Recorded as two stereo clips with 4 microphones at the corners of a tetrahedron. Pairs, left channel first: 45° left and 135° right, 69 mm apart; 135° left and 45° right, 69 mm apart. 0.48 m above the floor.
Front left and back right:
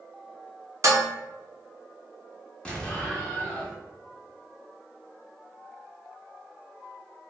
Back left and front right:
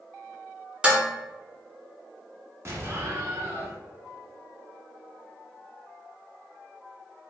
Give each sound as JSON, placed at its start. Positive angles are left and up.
{"t": 0.8, "sound": "dishes clattering", "azimuth_deg": -115, "distance_m": 0.6}
{"t": 2.6, "sound": "an explosion", "azimuth_deg": -25, "distance_m": 0.7}